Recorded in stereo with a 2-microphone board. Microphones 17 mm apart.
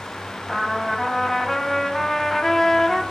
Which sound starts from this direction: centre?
A trumpet, at 0.5 s.